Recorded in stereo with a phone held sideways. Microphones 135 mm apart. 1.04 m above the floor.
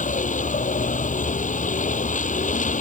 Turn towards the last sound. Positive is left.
turn(degrees=70)  # may be behind; listen again after turning